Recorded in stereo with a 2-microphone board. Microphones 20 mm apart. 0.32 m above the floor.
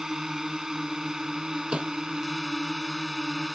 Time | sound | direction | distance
0.0 | a drone | 35° right (ahead or behind) | ?
1.7 | a snare drum | 80° right | ?